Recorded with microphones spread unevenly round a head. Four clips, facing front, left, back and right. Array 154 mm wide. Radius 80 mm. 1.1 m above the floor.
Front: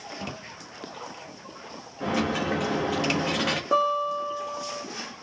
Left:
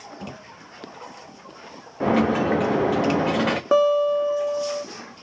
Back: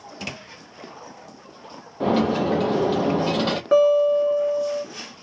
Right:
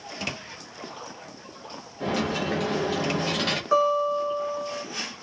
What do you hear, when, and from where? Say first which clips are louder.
2.0 s a dropped coin: left 7 dB, back 6 dB; 140° left, 0.5 m
3.7 s a guitar: left 4 dB, back 9 dB; 100° left, 1.2 m